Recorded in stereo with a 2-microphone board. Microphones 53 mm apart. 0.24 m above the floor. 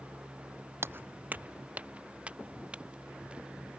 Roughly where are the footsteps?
Right.